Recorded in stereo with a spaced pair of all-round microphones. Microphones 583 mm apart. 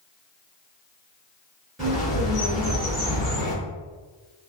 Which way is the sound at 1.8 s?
Centre (ahead or behind).